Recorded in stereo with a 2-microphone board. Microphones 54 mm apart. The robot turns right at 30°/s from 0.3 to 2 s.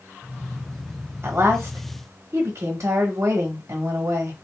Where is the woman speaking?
40° right (ahead or behind), 1.1 m; by 4.3 s 60° right (ahead or behind), 1.1 m.